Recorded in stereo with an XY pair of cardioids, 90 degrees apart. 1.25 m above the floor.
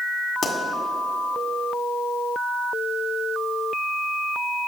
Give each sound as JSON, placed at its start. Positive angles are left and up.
{"t": 0.4, "sound": "a pop", "azimuth_deg": 50, "distance_m": 1.9}